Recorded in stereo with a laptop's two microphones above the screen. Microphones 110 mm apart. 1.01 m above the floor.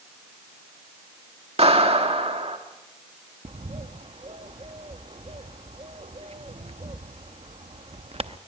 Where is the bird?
65° right (ahead or behind), 0.6 m.